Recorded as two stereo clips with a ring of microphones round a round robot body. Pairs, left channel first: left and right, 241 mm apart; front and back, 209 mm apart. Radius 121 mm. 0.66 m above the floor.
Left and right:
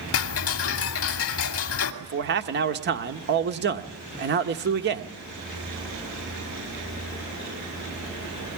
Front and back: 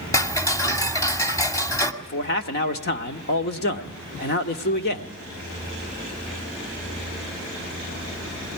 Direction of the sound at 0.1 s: 70° left.